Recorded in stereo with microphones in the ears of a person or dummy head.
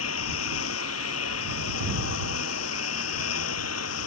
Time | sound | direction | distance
0.0 | a lawn mower | 80° left | ?